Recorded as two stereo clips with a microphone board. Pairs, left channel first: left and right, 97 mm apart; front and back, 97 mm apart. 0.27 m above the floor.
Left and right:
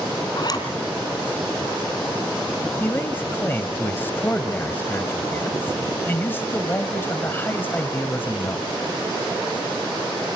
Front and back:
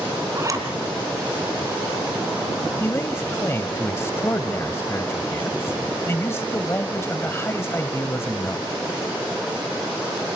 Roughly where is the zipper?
Behind left.